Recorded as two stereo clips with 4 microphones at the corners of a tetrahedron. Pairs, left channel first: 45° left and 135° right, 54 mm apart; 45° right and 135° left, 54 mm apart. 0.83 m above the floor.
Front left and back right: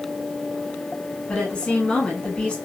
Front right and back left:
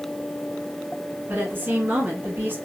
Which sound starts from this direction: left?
A woman speaking, at 1.3 s.